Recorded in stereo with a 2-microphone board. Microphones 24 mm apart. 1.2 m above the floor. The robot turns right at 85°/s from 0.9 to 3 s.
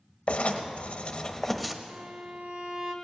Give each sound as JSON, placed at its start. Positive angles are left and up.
{"t": 0.3, "sound": "writing", "azimuth_deg": 120, "distance_m": 1.0}
{"t": 1.9, "sound": "a violin", "azimuth_deg": -105, "distance_m": 1.5}